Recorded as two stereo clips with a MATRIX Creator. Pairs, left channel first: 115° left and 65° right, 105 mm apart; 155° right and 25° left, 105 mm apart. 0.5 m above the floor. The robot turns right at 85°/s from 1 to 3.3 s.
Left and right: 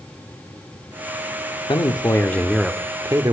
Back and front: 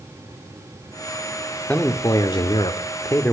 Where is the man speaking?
130° left, 1.0 m; by 3.3 s 95° right, 1.0 m.